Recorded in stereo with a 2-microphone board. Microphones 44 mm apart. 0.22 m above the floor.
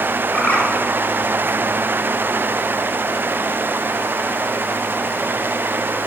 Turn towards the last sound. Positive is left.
turn(degrees=45)  # may be behind; listen again after turning